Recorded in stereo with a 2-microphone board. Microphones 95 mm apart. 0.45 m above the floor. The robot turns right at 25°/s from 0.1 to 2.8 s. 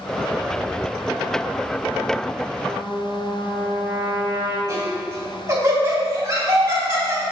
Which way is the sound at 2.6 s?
35° right (ahead or behind).